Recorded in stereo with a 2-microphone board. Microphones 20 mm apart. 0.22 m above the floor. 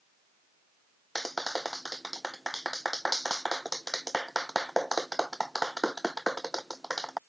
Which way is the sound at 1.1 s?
Centre (ahead or behind).